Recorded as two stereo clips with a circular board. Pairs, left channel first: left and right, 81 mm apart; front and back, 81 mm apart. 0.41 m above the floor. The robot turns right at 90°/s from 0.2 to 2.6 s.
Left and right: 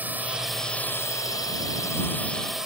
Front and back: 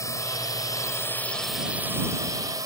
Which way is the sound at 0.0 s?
30° right.